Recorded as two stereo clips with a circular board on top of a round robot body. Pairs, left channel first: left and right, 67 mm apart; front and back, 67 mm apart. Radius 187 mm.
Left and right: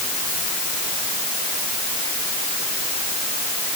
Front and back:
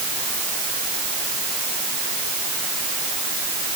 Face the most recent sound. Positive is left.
No sound to turn to.